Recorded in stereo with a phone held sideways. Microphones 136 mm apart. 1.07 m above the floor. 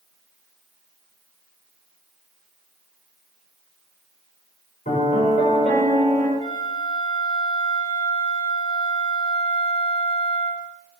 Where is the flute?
40° left (ahead or behind), 2 m.